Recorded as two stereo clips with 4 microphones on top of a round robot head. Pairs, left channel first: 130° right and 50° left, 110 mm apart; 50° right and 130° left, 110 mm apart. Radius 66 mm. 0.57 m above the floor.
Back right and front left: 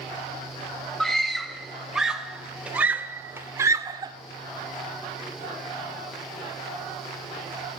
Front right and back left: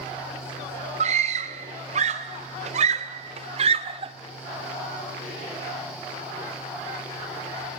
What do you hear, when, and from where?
1.0 s a scream: 145° left, 3.5 m; by 4.1 s 100° left, 1.8 m